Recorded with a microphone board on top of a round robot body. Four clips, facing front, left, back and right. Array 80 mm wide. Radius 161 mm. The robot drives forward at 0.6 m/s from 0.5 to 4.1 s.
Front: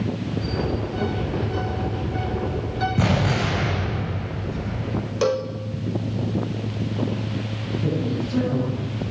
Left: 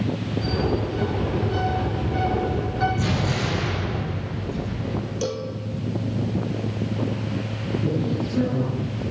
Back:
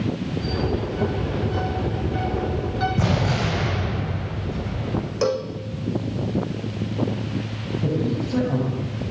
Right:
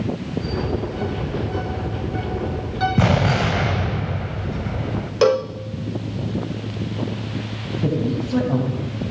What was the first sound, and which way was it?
An explosion, 85° right.